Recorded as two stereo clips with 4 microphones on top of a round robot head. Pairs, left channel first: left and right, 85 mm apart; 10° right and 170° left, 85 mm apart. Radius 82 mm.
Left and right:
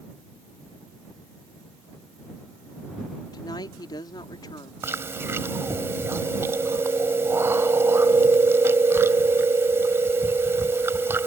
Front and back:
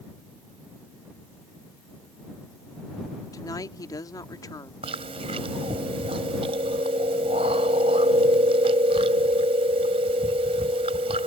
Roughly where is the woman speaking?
Ahead left.